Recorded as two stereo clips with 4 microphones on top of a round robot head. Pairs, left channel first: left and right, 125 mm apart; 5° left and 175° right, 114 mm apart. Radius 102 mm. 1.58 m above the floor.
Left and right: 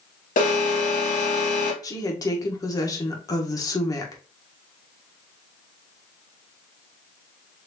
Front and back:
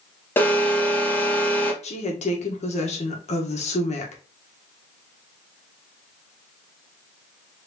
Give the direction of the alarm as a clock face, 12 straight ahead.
9 o'clock.